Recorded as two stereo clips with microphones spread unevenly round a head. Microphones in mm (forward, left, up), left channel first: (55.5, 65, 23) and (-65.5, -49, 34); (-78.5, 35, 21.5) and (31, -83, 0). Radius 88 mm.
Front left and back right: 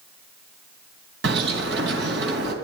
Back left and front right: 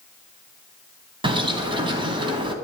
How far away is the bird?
About 3 m.